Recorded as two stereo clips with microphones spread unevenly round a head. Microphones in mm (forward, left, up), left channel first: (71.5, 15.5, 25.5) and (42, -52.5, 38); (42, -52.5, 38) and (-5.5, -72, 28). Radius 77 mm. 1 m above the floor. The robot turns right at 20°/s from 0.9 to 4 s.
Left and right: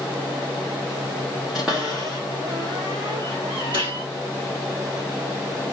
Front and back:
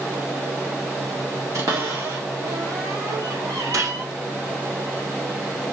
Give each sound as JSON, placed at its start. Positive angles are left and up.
{"t": 1.5, "sound": "a cupboard door", "azimuth_deg": 160, "distance_m": 1.4}
{"t": 3.7, "sound": "a gunshot", "azimuth_deg": -135, "distance_m": 1.6}